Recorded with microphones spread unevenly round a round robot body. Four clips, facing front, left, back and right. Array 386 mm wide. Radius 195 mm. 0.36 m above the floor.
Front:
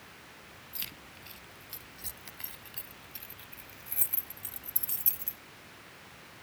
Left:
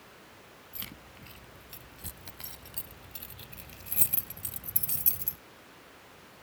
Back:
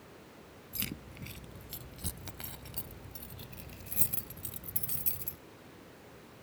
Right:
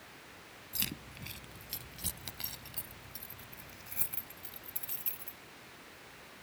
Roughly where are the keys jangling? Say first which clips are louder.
Right 5 dB, back 10 dB; behind right.